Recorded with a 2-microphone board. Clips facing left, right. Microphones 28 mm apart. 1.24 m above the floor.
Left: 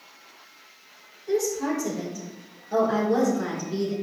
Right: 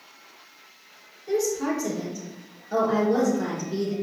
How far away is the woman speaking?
About 3 m.